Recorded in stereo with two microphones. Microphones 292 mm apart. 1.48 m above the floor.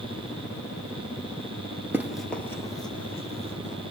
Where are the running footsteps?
5° right (ahead or behind), 1.6 m; by 3.8 s 25° left (ahead or behind), 3 m.